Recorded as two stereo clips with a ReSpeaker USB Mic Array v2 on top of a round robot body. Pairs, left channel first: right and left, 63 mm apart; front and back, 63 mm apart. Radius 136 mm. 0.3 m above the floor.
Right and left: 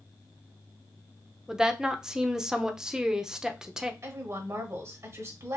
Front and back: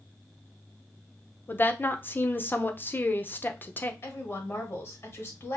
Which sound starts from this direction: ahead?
A woman speaking, at 1.5 s.